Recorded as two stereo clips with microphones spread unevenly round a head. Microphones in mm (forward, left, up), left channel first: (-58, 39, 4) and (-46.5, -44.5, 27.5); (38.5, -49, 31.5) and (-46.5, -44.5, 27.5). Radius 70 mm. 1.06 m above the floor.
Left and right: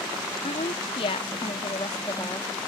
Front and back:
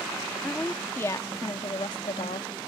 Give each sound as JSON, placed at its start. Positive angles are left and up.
{"t": 0.4, "sound": "a woman speaking", "azimuth_deg": 75}